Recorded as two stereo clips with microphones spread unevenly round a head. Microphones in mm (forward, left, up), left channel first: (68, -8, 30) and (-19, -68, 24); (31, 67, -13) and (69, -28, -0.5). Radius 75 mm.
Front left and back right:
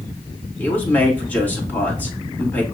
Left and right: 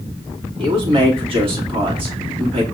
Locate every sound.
0.6 s a man speaking: 40° right, 2.5 m